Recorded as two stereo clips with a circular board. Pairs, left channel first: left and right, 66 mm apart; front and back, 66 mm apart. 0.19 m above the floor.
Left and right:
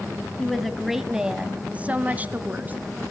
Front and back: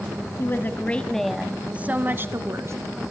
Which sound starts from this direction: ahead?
A woman speaking, at 0.4 s.